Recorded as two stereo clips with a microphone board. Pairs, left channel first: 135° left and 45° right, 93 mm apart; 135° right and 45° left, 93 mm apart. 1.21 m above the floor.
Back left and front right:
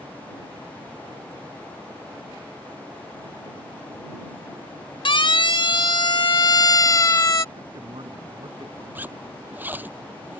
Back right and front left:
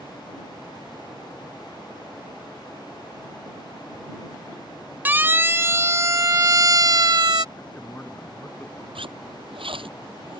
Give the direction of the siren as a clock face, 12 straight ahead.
8 o'clock.